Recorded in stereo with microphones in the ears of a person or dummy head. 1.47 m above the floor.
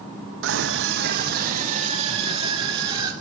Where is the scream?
70° right (ahead or behind), 1.3 m; by 3.1 s 25° right (ahead or behind), 3.5 m.